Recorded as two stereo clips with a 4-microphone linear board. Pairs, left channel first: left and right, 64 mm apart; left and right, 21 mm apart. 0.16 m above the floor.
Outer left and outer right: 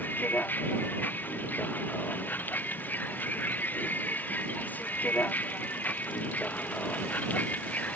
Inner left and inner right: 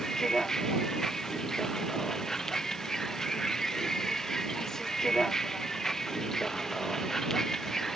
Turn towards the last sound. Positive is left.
turn(degrees=25)  # may be behind; listen again after turning